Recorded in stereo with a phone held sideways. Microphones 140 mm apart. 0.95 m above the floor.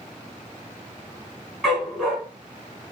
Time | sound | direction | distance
1.6 | a dog barking | centre (ahead or behind) | 3.5 m